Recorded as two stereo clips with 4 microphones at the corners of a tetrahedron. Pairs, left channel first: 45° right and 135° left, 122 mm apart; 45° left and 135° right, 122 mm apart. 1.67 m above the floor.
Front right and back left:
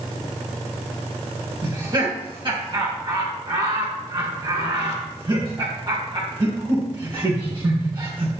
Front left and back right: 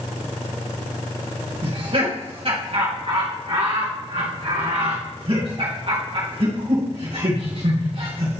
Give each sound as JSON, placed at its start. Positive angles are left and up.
{"t": 1.6, "sound": "laughter", "azimuth_deg": -175, "distance_m": 2.5}